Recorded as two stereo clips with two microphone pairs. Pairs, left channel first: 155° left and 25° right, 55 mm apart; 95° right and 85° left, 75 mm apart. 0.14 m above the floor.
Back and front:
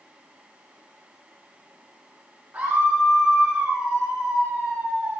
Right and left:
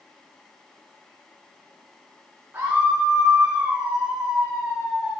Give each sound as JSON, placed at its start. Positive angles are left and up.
{"t": 2.5, "sound": "a scream", "azimuth_deg": 20, "distance_m": 6.5}